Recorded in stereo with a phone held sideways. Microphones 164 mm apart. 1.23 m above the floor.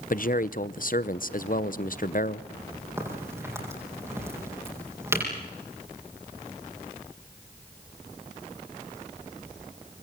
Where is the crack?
15° right (ahead or behind), 9.5 m.